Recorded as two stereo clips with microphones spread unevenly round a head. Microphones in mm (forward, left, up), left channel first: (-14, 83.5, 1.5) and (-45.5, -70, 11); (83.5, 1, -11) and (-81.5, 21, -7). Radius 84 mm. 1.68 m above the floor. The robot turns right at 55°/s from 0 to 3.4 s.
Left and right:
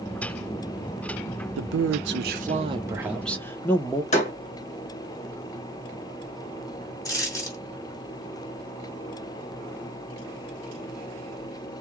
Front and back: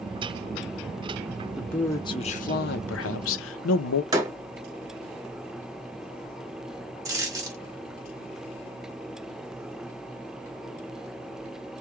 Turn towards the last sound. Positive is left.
turn(degrees=130)